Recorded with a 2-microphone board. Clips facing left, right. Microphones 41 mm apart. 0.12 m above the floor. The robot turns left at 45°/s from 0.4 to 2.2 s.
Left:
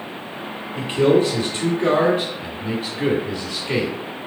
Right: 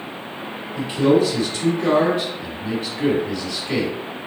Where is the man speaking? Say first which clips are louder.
Even; 35° left (ahead or behind), 2.0 m; by 4.0 s 10° left (ahead or behind), 2.0 m.